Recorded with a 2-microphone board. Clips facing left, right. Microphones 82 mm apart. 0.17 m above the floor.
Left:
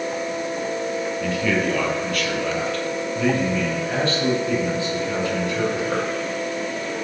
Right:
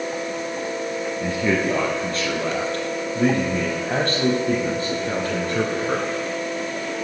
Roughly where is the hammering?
I don't hear hammering.